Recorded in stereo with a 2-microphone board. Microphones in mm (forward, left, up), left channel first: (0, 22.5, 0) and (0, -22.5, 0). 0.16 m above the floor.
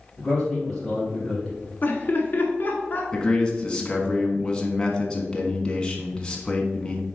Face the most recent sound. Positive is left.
turn(degrees=15)  # may be behind; listen again after turning